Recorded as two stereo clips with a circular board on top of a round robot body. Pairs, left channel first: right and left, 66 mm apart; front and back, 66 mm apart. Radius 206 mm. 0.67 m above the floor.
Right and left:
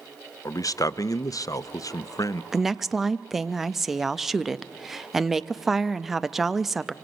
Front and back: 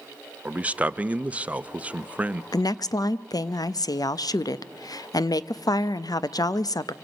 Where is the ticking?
No ticking in this recording.